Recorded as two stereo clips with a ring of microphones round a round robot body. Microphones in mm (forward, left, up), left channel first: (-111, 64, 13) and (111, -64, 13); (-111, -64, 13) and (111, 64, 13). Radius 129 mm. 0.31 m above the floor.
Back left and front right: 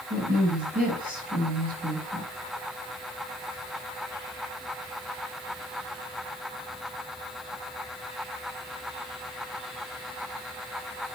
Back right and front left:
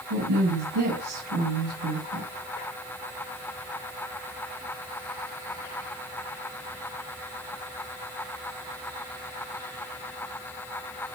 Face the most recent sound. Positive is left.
turn(degrees=30)